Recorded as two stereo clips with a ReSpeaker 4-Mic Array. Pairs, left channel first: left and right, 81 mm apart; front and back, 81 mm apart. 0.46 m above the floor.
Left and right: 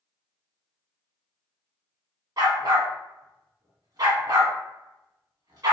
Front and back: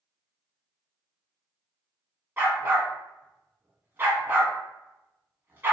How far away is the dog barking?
About 0.8 m.